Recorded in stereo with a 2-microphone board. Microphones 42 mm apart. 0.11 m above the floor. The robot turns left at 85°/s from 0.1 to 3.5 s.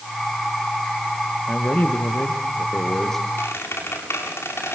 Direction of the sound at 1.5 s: 150° left.